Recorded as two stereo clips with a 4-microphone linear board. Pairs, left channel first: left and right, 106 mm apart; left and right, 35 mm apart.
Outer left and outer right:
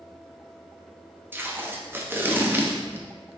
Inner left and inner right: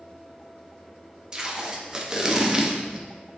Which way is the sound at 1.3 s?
20° right (ahead or behind).